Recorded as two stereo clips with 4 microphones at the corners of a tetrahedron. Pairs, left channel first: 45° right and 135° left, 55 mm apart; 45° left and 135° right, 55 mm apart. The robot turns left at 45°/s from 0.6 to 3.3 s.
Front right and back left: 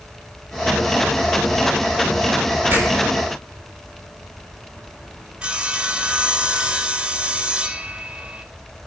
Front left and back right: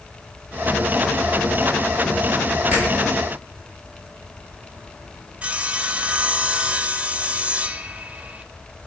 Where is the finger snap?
170° left, 7 m; by 2.9 s 160° left, 7 m.